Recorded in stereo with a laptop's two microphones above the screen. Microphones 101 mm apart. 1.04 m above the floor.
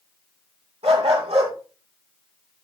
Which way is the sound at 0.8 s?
75° right (ahead or behind).